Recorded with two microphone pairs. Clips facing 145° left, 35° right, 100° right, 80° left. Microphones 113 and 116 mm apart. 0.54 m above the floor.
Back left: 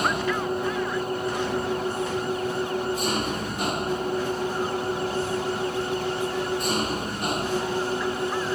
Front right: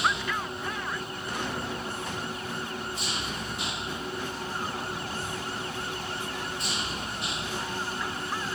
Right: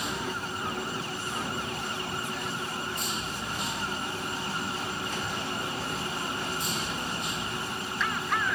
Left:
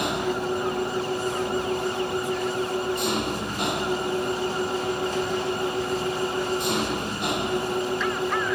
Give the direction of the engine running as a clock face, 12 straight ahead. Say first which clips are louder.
Back left 5 dB, left 8 dB; 9 o'clock.